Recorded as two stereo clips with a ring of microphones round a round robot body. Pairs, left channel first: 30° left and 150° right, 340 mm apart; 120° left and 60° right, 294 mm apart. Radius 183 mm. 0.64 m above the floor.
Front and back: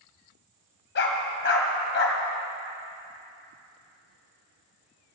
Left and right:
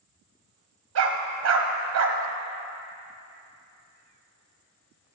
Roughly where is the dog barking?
Ahead right.